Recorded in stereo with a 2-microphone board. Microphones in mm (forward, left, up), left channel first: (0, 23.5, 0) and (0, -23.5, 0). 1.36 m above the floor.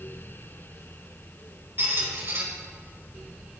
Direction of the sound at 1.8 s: 45° right (ahead or behind).